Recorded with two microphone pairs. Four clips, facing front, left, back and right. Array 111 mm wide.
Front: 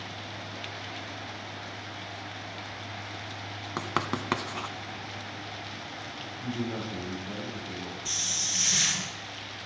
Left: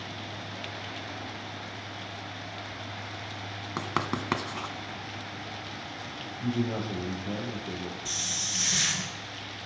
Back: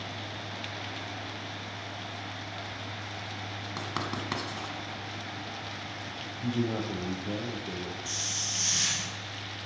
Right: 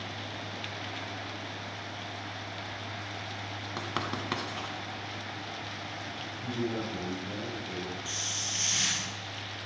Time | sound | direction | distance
3.8 | writing | 40° left | 1.0 m
6.4 | a man speaking | 140° left | 4.5 m
8.1 | a hiss | 55° left | 2.5 m